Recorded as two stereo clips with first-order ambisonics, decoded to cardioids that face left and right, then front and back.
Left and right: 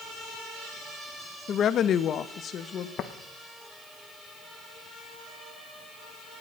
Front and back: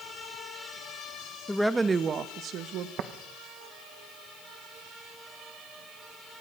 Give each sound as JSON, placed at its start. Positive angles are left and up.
{"t": 1.5, "sound": "a woman speaking", "azimuth_deg": 70, "distance_m": 0.6}
{"t": 3.0, "sound": "tapping", "azimuth_deg": 140, "distance_m": 1.2}